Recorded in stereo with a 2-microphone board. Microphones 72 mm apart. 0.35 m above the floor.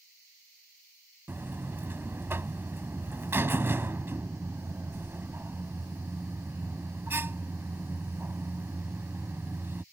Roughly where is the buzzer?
Right.